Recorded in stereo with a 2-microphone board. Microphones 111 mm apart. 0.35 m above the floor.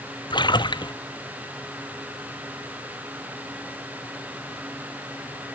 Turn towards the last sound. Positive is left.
turn(degrees=40)  # may be behind; listen again after turning